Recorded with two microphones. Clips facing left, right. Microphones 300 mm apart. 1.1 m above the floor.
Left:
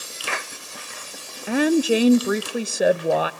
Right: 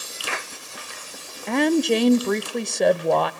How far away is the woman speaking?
About 0.8 m.